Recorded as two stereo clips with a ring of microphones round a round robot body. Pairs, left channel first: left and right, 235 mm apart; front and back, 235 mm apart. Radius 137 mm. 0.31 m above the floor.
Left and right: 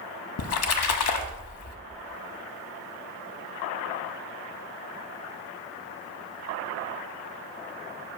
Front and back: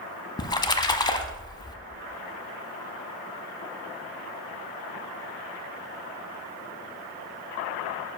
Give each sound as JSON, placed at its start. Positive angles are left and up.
{"t": 0.4, "sound": "a splash", "azimuth_deg": 75, "distance_m": 0.7}